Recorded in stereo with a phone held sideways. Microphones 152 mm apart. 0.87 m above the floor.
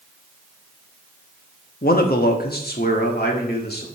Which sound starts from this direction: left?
A man speaking, at 1.8 s.